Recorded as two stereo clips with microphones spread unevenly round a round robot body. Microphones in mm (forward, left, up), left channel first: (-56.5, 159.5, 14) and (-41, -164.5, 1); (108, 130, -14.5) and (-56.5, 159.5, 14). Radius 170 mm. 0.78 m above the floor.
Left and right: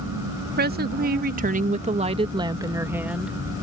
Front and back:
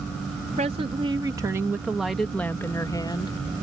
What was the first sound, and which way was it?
A woman speaking, 130° right.